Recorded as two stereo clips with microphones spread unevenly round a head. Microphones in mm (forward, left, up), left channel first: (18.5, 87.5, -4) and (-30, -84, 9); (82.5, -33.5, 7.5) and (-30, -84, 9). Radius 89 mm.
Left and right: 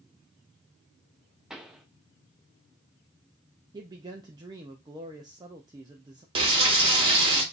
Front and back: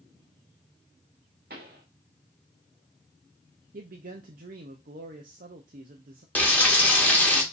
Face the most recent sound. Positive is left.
turn(degrees=-50)